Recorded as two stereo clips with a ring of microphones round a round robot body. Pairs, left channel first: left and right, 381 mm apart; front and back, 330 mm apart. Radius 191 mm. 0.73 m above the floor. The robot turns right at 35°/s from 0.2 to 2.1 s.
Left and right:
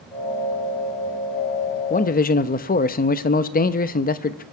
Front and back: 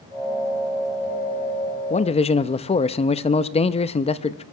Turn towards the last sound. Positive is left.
turn(degrees=50)